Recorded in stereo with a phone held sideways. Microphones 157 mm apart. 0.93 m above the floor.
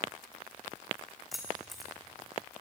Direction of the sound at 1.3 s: Centre (ahead or behind).